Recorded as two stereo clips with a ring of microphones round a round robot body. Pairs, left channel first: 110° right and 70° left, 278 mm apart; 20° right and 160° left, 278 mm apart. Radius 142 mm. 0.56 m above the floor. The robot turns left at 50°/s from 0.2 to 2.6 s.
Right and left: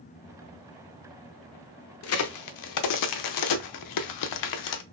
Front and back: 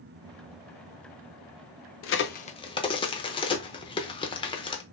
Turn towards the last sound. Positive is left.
turn(degrees=-95)